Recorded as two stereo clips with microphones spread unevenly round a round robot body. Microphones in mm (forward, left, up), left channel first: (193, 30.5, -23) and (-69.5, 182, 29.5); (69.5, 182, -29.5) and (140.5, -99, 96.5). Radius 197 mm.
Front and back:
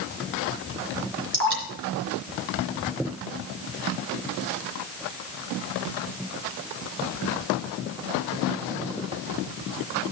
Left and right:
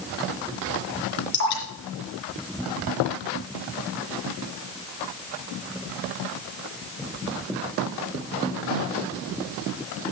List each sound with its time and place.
1.3 s dripping: 100° left, 3.5 m